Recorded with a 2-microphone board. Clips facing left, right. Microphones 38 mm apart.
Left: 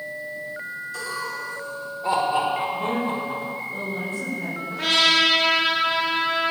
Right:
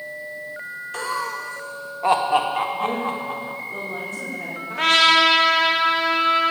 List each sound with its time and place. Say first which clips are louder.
0.9 s laughter: right 5 dB; 50° right (ahead or behind), 0.9 m; by 3.6 s 80° right, 3 m
2.7 s a woman speaking: right 1 dB; 60° right (ahead or behind), 6 m
4.7 s a trumpet: right 4 dB; 65° right (ahead or behind), 2.0 m